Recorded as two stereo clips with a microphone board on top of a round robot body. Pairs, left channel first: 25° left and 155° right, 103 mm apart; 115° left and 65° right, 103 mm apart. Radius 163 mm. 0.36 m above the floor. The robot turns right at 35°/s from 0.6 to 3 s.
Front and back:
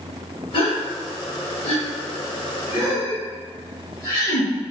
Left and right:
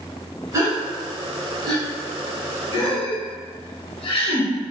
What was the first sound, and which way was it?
A gasp, 10° right.